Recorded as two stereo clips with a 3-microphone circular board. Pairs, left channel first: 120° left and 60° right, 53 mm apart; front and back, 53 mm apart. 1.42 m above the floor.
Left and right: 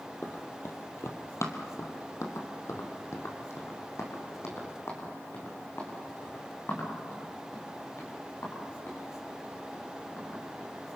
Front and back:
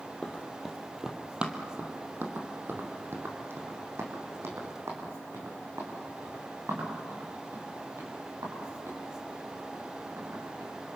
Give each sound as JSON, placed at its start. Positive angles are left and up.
{"t": 0.2, "sound": "running footsteps", "azimuth_deg": 75, "distance_m": 2.5}